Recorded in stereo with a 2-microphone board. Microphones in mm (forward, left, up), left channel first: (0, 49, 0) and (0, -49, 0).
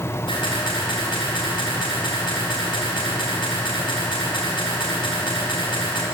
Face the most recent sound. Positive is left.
turn(degrees=55)  # may be behind; listen again after turning